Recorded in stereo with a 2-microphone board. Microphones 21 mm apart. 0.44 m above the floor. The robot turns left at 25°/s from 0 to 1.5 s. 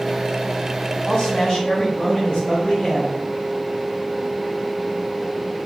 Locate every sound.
1.1 s a man speaking: 45° left (ahead or behind), 1.7 m; by 3.2 s 35° left (ahead or behind), 1.7 m